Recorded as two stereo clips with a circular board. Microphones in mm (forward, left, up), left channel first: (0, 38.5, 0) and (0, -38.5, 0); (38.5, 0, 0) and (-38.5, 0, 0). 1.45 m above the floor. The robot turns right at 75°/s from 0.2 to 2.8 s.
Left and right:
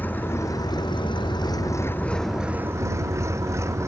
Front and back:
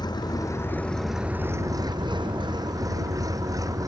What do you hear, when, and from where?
0.0 s an engine running: 25° left; by 3.9 s 140° right